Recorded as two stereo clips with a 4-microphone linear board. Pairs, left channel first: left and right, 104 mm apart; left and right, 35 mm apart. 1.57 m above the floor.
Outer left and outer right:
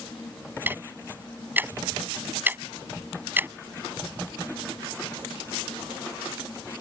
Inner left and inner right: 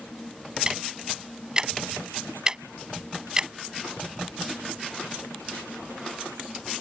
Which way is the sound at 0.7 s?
20° right (ahead or behind).